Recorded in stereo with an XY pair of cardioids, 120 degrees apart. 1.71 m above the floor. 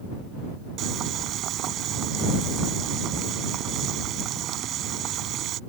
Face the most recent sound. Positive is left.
turn(degrees=-65)